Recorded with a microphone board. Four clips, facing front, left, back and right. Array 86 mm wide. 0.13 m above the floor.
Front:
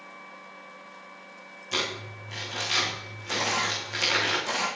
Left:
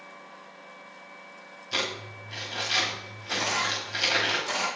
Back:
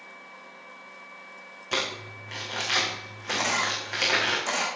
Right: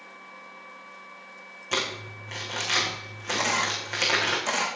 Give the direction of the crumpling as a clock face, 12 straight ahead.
4 o'clock.